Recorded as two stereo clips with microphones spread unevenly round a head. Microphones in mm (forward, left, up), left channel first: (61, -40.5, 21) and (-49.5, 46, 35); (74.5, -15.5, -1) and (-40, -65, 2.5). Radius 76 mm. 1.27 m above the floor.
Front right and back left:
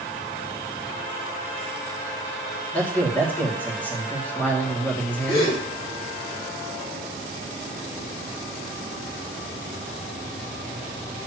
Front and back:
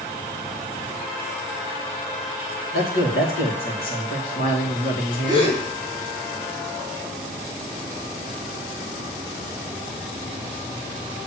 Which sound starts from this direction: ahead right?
A gasp, at 5.3 s.